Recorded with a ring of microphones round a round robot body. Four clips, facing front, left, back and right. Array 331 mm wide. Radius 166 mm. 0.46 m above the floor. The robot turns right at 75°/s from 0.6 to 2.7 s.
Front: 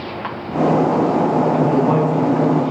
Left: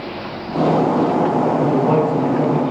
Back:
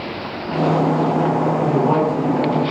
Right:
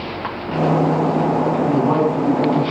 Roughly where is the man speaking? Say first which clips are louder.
Left 1 dB, front 1 dB; ahead left.